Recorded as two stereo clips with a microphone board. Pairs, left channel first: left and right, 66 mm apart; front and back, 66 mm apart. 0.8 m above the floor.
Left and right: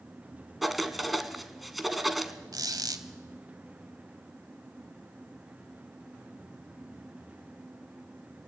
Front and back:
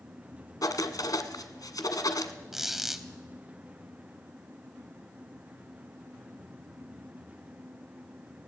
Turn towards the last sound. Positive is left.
turn(degrees=-95)